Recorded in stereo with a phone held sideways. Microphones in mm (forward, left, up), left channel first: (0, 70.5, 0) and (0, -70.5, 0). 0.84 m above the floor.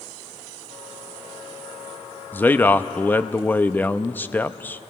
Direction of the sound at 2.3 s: 15° left (ahead or behind).